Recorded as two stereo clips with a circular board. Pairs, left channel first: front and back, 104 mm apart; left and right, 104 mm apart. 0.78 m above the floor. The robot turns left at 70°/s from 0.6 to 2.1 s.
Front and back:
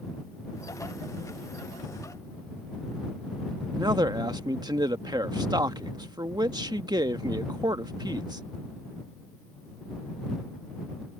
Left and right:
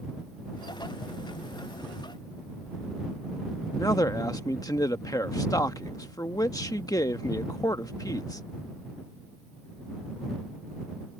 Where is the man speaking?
140° left.